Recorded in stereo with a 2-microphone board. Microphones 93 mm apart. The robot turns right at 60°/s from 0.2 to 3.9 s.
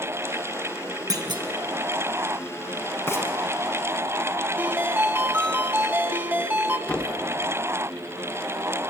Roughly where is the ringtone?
Right.